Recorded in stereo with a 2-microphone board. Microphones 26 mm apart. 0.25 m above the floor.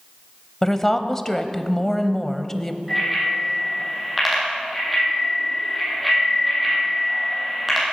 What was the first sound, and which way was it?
A woman speaking, 10° left (ahead or behind).